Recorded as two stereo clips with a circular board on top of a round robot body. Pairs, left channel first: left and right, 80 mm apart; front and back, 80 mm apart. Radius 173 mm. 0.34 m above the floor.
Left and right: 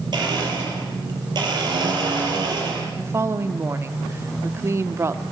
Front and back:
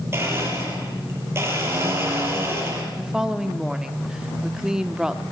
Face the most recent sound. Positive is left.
turn(degrees=-105)